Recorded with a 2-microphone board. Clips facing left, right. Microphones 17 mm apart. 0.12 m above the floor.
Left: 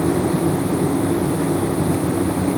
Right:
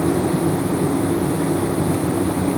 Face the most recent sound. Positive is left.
No sound to turn to.